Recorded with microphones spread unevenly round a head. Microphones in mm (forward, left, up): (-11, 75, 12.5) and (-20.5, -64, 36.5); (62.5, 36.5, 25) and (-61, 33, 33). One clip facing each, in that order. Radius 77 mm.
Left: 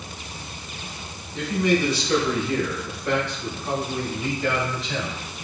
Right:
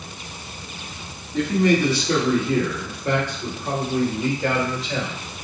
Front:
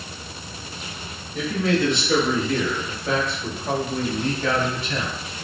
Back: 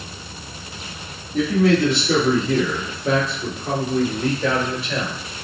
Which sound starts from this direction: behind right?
A man speaking, at 1.3 s.